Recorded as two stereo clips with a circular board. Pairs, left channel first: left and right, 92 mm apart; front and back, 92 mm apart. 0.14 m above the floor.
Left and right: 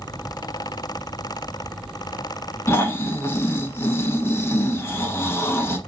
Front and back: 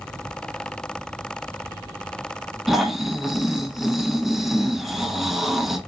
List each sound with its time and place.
2.7 s snoring: 95° left, 0.6 m